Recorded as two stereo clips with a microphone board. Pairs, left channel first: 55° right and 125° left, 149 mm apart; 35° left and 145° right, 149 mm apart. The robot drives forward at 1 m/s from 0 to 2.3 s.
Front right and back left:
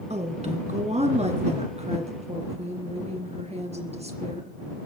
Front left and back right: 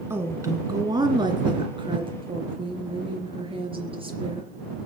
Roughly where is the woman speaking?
Behind left.